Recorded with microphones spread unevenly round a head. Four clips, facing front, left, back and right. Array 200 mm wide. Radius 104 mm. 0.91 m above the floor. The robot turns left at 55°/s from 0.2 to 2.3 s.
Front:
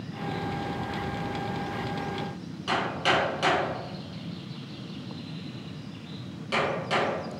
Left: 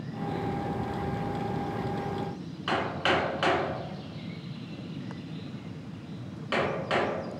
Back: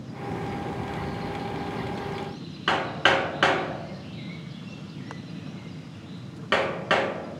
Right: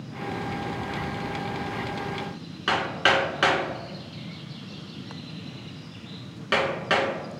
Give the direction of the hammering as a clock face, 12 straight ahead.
4 o'clock.